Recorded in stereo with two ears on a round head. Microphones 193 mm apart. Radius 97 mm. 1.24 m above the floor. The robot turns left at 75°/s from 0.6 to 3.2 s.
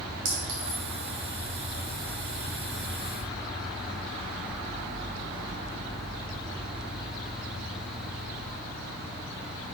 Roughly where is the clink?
Right.